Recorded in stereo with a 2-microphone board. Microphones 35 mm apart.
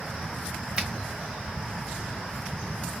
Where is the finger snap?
30° right (ahead or behind), 1.7 m.